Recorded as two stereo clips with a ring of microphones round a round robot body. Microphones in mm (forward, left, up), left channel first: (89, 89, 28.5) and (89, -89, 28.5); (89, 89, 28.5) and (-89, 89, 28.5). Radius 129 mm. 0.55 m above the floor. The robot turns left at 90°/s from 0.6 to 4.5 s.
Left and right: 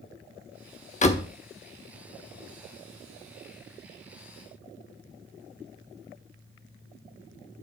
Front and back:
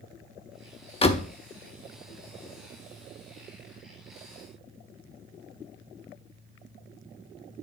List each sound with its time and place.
1.0 s a door slam: 55° left, 1.0 m; by 1.3 s 25° left, 1.0 m